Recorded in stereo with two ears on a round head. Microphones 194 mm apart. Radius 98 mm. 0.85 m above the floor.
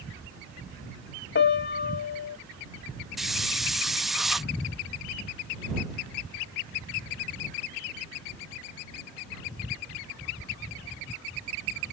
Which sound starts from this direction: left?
A piano, at 1.4 s.